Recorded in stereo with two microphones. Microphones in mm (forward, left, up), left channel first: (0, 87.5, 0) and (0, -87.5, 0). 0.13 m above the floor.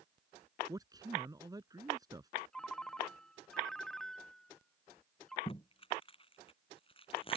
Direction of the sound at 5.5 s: 30° left (ahead or behind).